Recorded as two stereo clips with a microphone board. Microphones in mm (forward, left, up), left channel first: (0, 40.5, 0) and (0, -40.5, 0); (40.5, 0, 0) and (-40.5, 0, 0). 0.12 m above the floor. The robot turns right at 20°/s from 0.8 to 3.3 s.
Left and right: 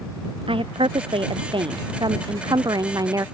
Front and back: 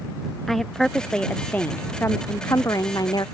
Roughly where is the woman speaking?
Right.